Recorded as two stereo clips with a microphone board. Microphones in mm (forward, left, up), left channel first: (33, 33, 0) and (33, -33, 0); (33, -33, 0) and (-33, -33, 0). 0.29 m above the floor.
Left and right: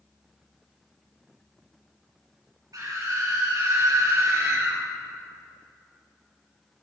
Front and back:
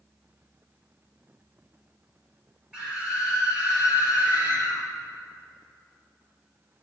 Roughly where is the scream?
Right.